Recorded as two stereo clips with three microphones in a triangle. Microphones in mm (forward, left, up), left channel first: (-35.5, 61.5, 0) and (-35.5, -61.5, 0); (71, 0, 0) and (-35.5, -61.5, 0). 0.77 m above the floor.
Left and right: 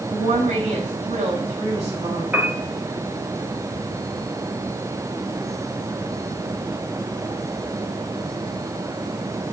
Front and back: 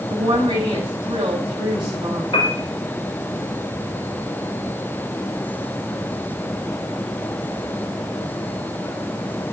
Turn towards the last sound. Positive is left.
turn(degrees=-15)